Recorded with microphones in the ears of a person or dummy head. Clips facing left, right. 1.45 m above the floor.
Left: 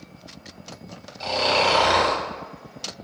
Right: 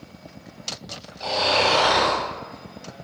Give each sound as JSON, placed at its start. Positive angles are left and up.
{"t": 1.2, "sound": "snoring", "side_deg": 35, "distance_m": 1.0}